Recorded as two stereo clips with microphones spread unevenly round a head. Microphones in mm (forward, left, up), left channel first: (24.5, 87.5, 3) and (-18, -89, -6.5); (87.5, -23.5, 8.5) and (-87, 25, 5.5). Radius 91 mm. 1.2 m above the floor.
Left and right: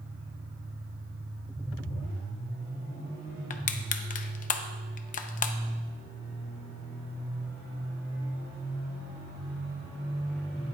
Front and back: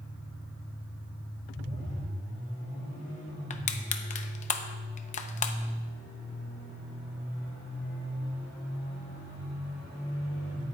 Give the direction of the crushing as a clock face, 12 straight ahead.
11 o'clock.